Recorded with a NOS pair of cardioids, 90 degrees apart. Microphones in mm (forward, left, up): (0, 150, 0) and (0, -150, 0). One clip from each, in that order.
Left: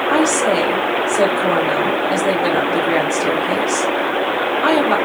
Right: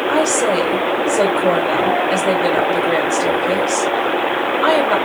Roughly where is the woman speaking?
Ahead.